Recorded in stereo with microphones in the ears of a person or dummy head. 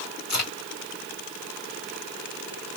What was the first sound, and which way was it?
A crack, 50° left (ahead or behind).